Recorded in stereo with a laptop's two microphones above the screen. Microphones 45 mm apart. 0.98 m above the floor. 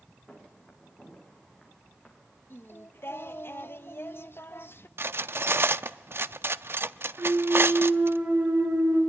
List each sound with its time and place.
0.3 s footsteps: centre (ahead or behind), 6 m; by 2.2 s 10° right (ahead or behind), 5.5 m
2.5 s singing: 55° left (ahead or behind), 0.8 m
5.0 s cutlery clinking: 60° right (ahead or behind), 0.7 m
7.2 s a clunk: 75° right (ahead or behind), 6 m